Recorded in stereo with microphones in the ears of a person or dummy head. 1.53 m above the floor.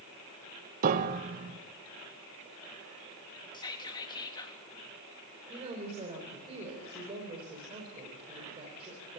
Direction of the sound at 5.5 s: 30° right (ahead or behind).